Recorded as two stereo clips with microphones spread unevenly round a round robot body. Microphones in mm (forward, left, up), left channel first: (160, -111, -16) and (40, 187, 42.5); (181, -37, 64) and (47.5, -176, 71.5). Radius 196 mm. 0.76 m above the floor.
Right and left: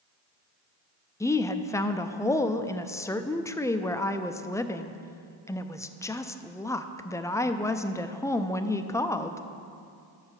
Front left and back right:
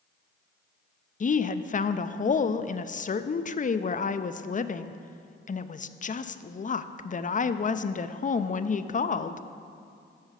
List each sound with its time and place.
1.2 s a woman speaking: 5° left, 0.5 m